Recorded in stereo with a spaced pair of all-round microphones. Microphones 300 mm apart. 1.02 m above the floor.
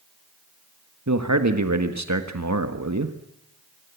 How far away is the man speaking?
About 1.4 m.